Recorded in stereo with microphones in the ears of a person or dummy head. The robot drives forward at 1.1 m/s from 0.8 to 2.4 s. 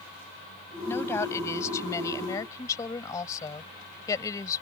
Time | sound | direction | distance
0.9 | a woman speaking | 15° left (ahead or behind) | ?